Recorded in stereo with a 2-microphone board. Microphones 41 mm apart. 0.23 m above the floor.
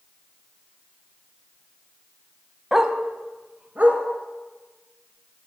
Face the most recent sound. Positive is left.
turn(degrees=-40)  # may be behind; listen again after turning